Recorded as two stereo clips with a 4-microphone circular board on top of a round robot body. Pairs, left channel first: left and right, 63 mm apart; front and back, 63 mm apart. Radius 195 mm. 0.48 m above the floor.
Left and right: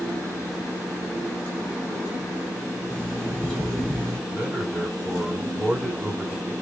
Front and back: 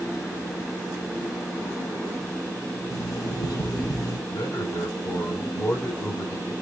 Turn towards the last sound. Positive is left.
turn(degrees=-20)